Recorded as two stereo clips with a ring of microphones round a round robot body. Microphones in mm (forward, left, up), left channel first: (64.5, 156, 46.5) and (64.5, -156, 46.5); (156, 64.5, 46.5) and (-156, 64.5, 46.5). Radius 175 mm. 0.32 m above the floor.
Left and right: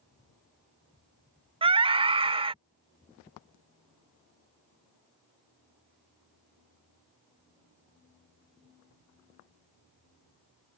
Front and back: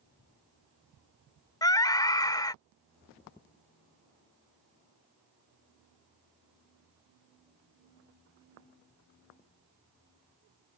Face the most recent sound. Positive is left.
turn(degrees=-55)